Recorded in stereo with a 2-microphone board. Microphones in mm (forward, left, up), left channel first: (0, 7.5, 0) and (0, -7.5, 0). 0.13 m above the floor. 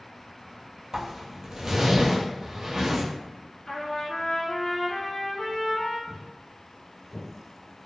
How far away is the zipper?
About 0.7 m.